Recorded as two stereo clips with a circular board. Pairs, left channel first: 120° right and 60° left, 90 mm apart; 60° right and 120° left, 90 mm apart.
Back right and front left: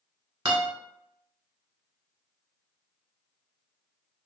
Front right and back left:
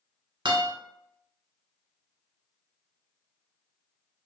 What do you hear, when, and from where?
0.5 s a guitar: 85° left, 1.1 m